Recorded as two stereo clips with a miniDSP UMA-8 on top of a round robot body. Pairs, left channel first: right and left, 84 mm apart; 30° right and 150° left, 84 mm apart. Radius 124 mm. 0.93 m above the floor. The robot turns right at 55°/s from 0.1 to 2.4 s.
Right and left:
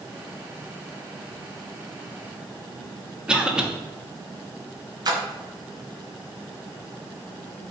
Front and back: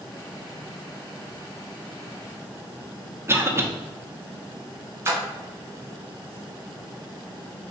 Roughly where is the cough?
Behind.